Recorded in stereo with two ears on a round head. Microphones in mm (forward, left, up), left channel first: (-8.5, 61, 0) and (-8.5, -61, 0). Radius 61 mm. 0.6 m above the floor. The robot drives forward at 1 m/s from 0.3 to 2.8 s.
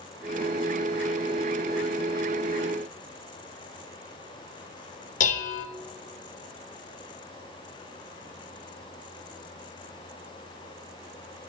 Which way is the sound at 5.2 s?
60° left (ahead or behind).